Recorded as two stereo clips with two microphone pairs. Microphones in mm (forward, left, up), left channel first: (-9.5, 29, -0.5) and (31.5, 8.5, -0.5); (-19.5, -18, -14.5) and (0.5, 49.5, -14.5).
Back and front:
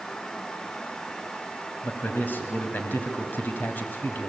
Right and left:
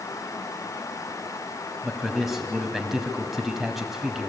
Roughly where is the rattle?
I don't hear a rattle.